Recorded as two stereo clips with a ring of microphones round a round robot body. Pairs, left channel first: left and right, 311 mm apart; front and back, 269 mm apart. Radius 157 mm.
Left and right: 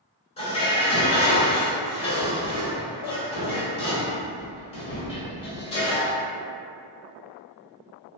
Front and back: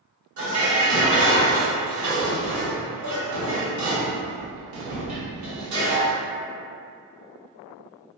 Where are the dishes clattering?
160° left, 1.2 m.